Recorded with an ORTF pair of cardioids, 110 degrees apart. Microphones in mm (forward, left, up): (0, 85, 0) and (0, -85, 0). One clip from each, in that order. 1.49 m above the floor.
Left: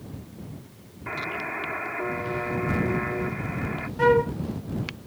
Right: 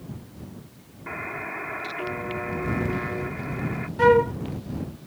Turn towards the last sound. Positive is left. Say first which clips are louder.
# right 3 dB
turn(degrees=-15)